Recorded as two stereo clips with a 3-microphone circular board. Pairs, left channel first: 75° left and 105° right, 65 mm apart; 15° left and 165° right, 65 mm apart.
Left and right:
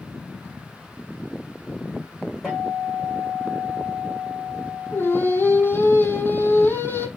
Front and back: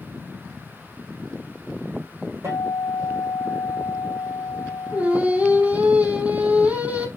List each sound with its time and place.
2.4 s a guitar: 155° left, 10 m
4.9 s singing: 130° left, 4 m